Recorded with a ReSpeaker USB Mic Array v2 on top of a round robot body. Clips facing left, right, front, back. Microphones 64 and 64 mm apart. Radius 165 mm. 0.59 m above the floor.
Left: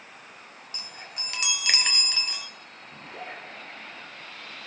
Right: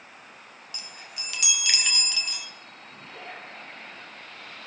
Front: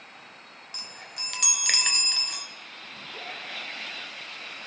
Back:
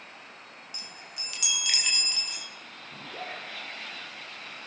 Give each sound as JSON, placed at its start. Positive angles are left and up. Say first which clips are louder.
{"t": 0.7, "sound": "a chime", "louder": "left 1 dB, front 5 dB", "azimuth_deg": 35, "distance_m": 2.0}
{"t": 2.9, "sound": "a zipper", "louder": "left 2 dB, back 2 dB", "azimuth_deg": 160, "distance_m": 9.0}